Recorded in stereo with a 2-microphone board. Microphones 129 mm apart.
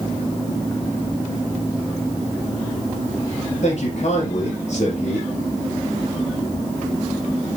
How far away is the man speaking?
About 4.5 m.